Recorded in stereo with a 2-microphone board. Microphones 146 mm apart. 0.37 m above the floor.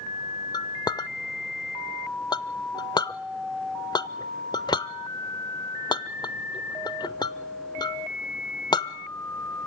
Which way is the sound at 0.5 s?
30° left (ahead or behind).